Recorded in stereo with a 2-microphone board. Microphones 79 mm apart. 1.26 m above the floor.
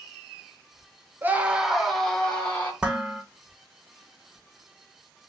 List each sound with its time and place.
1.2 s a scream: 25° right (ahead or behind), 0.8 m; by 2.7 s 15° left (ahead or behind), 1.6 m
2.8 s dishes clattering: 15° right (ahead or behind), 0.7 m